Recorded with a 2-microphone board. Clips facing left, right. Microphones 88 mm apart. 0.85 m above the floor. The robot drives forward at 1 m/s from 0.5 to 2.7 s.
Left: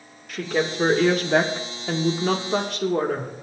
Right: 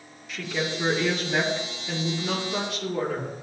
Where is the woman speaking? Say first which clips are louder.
Left 5 dB; 50° left (ahead or behind), 2 m; by 3.3 s 60° left (ahead or behind), 1.9 m.